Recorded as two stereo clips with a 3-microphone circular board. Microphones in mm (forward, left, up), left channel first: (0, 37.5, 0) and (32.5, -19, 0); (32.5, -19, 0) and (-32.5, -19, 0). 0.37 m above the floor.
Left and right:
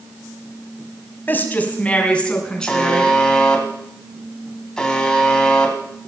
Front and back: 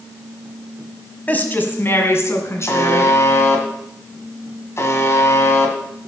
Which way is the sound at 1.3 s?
60° left.